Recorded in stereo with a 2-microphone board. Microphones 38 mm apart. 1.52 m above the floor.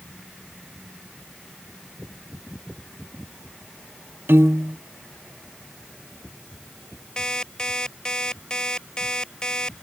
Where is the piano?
85° right.